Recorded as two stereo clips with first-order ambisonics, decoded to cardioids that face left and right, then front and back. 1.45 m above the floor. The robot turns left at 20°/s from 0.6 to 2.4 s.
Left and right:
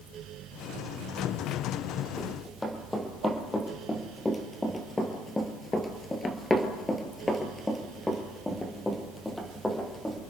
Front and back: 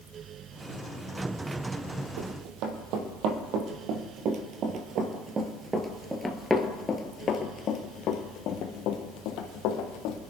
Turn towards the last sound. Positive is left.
turn(degrees=5)